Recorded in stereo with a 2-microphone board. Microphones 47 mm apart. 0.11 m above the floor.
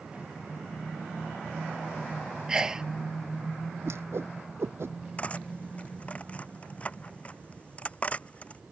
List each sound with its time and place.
2.5 s a sneeze: 15° right (ahead or behind)
3.9 s a whoosh: 65° right (ahead or behind)
5.2 s cutlery clinking: 30° left (ahead or behind)